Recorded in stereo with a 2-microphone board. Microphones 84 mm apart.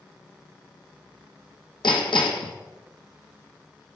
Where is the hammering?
75° left (ahead or behind), 1.3 m.